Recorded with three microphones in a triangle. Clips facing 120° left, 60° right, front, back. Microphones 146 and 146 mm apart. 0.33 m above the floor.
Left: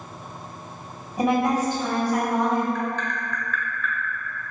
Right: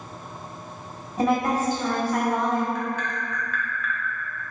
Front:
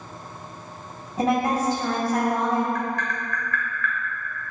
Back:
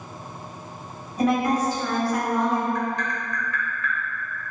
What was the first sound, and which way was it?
A woman speaking, 50° left.